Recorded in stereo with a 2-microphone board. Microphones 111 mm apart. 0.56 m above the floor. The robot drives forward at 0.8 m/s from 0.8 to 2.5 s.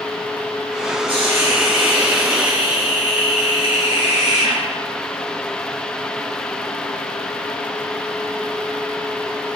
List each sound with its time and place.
1.1 s a hiss: 55° right (ahead or behind), 4.5 m; by 4.6 s 45° right (ahead or behind), 5.5 m